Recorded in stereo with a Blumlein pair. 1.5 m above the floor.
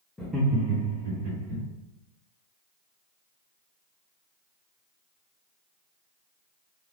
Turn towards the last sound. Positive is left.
turn(degrees=-65)